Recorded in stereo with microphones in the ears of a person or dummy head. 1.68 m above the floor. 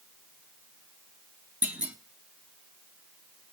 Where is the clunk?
10° right (ahead or behind), 0.9 m.